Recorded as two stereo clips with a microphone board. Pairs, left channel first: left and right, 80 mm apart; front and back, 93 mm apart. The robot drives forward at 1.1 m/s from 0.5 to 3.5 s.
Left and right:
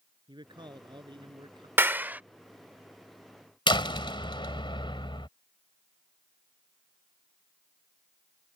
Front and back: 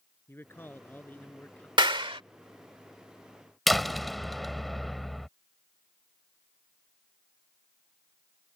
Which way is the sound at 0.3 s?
65° right.